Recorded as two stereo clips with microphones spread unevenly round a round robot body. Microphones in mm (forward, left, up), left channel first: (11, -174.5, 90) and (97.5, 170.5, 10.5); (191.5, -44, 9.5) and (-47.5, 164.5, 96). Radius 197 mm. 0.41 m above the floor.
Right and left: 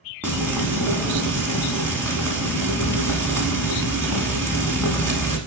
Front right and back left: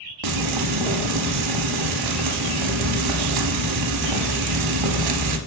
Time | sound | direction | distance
0.2 | frying | 175° left | 0.7 m